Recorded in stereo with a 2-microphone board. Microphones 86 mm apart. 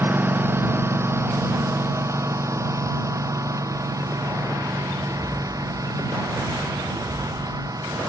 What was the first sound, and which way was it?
A lawn mower, 25° right (ahead or behind).